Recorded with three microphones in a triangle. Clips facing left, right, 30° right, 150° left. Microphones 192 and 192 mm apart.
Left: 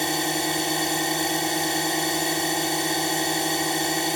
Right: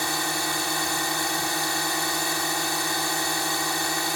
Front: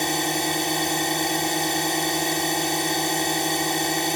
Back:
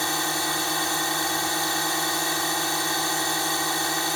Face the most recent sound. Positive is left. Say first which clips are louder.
# left 4 dB, front 4 dB
turn(degrees=30)